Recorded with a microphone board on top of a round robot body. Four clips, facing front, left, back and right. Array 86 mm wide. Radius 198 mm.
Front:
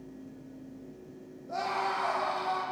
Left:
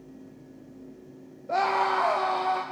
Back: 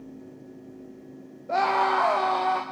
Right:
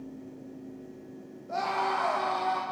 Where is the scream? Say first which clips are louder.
Left 5 dB, back 9 dB; 145° left, 2.0 m; by 2.6 s 175° left, 2.5 m.